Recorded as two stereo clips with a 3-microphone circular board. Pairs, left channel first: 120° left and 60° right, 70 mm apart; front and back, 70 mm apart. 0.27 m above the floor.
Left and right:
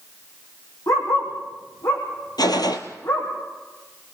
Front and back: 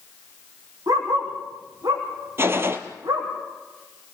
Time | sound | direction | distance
0.9 | a dog barking | 150° left | 5.5 m
2.4 | a gunshot | 130° left | 1.3 m